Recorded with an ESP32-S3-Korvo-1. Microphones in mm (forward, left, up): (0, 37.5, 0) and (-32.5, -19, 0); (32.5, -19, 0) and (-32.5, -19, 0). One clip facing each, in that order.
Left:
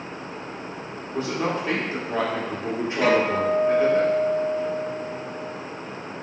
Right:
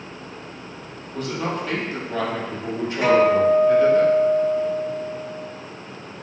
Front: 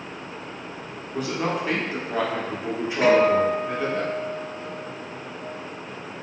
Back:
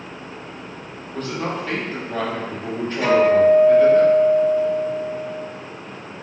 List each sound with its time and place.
1.1 s a man speaking: 65° left, 0.7 m
3.0 s a guitar: 45° right, 1.4 m